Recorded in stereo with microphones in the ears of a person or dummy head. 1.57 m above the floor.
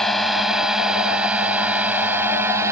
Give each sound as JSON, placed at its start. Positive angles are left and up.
{"t": 0.0, "sound": "a drone", "side_deg": 5}